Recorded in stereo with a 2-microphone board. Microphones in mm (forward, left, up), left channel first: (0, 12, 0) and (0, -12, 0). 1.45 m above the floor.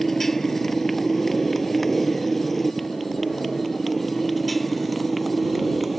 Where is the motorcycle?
10° left (ahead or behind); by 6.0 s centre (ahead or behind).